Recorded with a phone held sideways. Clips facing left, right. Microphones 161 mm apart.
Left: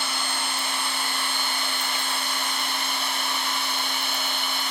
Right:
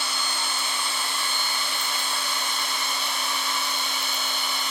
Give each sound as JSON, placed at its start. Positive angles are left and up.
{"t": 0.0, "sound": "a machine running", "side_deg": 65, "distance_m": 2.5}